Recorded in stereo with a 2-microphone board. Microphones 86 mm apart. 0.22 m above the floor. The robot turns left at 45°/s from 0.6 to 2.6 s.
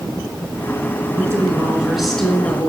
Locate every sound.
1.1 s a woman speaking: 140° right, 3.5 m; by 2.7 s 155° left, 3.5 m